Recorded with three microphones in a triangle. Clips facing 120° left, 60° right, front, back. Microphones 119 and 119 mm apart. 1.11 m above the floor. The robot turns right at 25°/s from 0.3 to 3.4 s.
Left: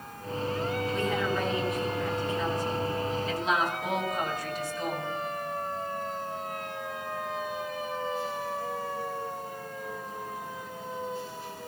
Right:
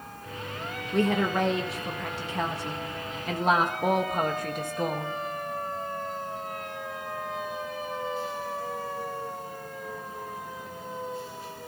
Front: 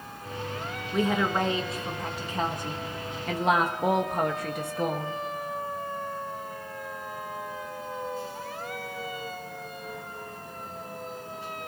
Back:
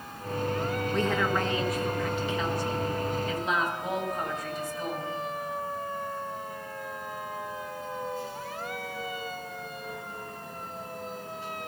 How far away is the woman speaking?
About 1.7 m.